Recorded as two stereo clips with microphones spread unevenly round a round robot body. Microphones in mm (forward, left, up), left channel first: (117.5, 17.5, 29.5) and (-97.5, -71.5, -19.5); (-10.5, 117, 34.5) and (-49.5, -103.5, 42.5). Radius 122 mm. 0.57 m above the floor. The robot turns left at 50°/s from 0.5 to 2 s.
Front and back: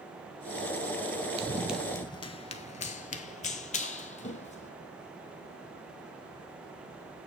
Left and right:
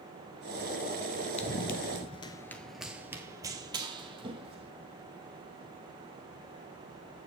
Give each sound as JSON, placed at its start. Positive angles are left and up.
{"t": 1.4, "sound": "running footsteps", "azimuth_deg": 135, "distance_m": 0.6}